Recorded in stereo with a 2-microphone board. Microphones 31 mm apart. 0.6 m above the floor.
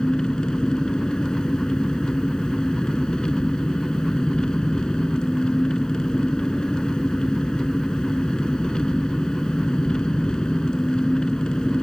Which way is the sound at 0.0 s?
30° left (ahead or behind).